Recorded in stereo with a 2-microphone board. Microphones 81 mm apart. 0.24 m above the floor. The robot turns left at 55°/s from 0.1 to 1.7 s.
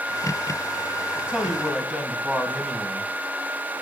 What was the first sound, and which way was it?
A man speaking, 150° right.